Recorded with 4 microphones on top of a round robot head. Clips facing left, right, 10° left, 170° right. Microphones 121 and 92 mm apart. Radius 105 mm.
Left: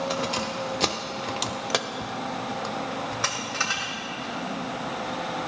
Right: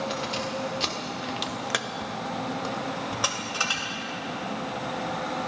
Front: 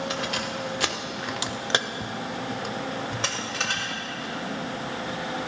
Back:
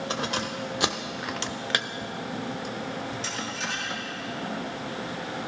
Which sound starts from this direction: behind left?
Keys jangling, at 0.1 s.